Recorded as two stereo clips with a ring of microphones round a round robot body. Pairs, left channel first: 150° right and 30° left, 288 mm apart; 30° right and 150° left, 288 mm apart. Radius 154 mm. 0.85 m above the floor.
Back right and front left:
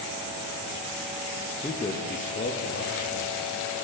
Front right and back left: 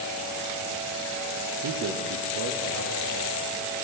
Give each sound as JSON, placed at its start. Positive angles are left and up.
{"t": 1.6, "sound": "a man speaking", "azimuth_deg": 135, "distance_m": 0.8}